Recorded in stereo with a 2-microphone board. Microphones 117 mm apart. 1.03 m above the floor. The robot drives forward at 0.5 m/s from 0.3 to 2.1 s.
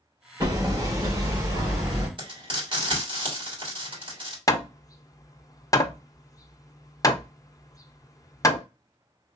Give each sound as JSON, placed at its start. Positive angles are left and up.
{"t": 0.4, "sound": "hammering", "side_deg": -35, "distance_m": 1.7}
{"t": 2.2, "sound": "frying", "side_deg": -45, "distance_m": 2.5}
{"t": 4.5, "sound": "hammering", "side_deg": 30, "distance_m": 0.5}